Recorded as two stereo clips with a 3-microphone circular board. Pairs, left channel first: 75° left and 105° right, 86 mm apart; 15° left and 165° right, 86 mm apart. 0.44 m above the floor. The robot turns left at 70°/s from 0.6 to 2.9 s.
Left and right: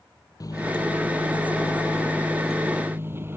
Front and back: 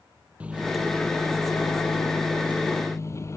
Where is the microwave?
120° left; by 3.4 s 40° right.